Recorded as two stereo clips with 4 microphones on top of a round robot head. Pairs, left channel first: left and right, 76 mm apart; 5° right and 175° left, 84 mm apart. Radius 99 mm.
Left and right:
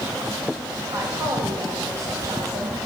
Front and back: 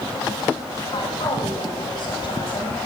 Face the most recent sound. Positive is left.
turn(degrees=-40)